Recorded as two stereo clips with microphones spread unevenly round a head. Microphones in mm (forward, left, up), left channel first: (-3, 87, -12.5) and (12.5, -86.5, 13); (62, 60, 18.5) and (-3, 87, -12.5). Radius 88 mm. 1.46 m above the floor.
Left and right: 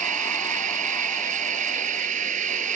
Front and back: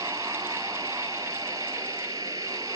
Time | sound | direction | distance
0.0 | running water | 135° right | ?